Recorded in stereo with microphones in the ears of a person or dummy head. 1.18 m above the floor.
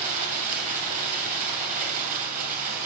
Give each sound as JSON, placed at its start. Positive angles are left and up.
{"t": 0.0, "sound": "running water", "side_deg": -40, "distance_m": 2.5}